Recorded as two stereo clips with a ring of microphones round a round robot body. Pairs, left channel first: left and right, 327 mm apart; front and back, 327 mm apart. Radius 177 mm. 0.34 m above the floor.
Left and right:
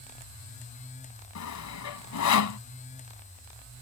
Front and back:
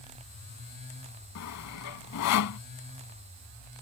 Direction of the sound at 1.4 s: 50° left.